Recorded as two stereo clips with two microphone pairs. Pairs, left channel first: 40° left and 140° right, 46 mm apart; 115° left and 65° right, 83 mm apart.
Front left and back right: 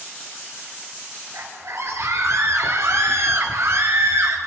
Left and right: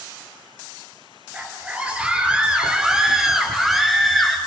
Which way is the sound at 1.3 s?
135° right.